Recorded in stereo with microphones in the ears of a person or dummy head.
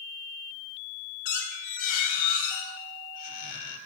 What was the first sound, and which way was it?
A squeak, 50° left (ahead or behind).